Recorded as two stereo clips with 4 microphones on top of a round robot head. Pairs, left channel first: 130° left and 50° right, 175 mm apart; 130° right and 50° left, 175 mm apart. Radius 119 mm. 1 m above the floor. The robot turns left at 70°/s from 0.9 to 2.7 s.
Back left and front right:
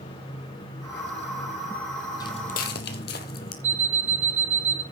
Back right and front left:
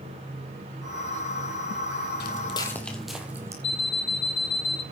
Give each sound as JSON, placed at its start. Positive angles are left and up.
{"t": 2.2, "sound": "footsteps", "azimuth_deg": -160, "distance_m": 1.3}
{"t": 3.6, "sound": "an alarm clock", "azimuth_deg": -105, "distance_m": 1.9}